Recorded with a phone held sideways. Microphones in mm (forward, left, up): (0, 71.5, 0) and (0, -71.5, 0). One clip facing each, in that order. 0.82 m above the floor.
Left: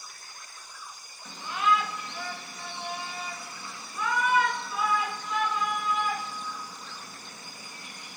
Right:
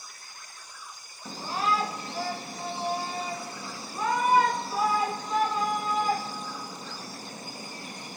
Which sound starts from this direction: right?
A shout, at 1.2 s.